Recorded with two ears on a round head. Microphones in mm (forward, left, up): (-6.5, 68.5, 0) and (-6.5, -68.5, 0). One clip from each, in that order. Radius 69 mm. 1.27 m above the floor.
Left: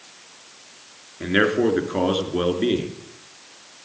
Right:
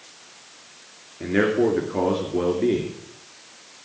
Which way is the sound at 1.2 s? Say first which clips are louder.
Left 1 dB; 70° left (ahead or behind).